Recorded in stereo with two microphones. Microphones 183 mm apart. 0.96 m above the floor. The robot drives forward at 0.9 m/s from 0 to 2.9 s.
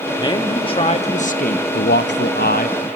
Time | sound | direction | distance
0.2 | a man speaking | 25° left (ahead or behind) | 1.9 m